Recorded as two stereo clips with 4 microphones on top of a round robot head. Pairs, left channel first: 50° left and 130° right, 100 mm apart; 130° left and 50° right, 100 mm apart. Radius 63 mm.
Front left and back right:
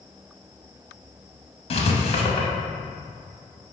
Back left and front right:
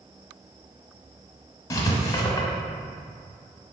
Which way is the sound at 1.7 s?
70° left.